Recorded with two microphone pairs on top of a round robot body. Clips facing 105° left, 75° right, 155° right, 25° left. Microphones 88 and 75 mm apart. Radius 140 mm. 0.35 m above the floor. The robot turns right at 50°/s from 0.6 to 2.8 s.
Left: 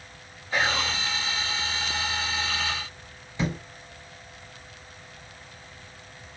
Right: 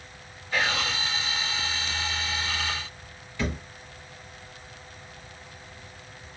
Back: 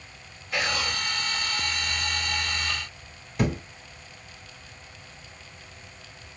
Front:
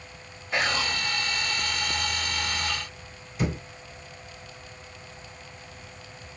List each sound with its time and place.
0.5 s whispering: 50° left, 1.1 m; by 0.9 s 65° left, 1.1 m
3.4 s a thud: 175° left, 1.1 m